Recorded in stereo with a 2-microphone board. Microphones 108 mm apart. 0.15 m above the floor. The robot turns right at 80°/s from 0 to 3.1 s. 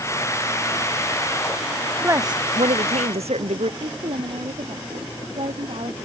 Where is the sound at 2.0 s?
160° right; by 3.7 s 75° right.